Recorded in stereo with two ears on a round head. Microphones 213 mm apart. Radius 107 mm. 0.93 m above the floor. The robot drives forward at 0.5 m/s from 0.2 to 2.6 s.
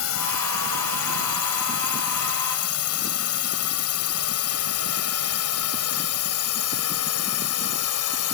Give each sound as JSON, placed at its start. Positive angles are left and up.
{"t": 0.0, "sound": "a drone", "side_deg": 65}